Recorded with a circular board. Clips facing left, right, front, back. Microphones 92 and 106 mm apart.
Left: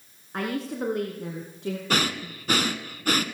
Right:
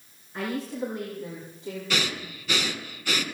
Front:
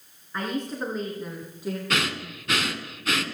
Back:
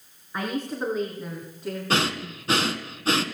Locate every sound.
0.3 s a woman speaking: 100° left, 2.5 m; by 1.8 s 85° left, 2.5 m
1.9 s breathing: 125° left, 1.2 m